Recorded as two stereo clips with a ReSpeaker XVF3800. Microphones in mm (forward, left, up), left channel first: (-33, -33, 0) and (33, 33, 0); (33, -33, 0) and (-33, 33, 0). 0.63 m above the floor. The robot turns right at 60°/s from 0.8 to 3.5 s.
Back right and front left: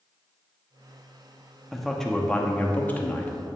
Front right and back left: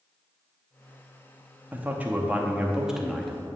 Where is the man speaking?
130° left, 0.9 m; by 3.3 s 130° right, 0.9 m.